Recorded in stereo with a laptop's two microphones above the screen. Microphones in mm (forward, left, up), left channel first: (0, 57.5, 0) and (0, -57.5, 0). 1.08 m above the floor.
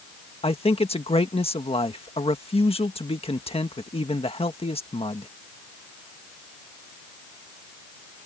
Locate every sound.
0.4 s a man speaking: 55° left (ahead or behind)